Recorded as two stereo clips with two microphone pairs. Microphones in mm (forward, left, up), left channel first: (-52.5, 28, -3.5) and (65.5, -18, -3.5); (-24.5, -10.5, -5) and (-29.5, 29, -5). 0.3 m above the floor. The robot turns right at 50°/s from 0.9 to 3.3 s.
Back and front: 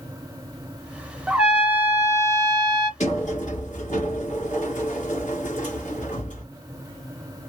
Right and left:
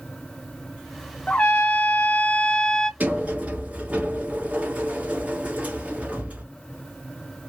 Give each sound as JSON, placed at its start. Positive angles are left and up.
{"t": 1.3, "sound": "a trumpet", "azimuth_deg": -100, "distance_m": 0.6}
{"t": 3.0, "sound": "a sliding door", "azimuth_deg": 140, "distance_m": 1.6}